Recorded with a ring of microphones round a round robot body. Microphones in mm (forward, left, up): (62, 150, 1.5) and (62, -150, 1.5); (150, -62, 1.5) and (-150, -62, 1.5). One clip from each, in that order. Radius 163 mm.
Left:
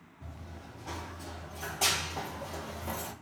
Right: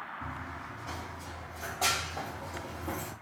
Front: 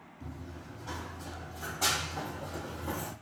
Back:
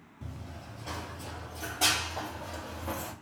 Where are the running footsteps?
175° right, 1.2 m; by 3.1 s 110° left, 1.5 m.